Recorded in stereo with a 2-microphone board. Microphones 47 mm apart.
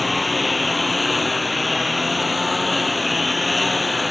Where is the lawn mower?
Centre (ahead or behind).